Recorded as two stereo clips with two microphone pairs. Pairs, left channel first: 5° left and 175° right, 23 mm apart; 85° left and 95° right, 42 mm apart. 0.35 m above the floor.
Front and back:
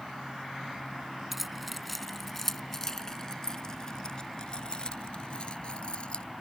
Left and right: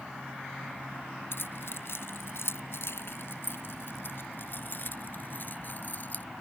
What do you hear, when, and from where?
1.3 s keys jangling: 105° left; by 6.2 s 45° left